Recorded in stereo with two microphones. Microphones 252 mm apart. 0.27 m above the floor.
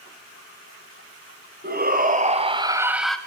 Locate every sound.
1.6 s a shout: 40° right (ahead or behind), 2 m; by 3.2 s 5° left (ahead or behind), 1.3 m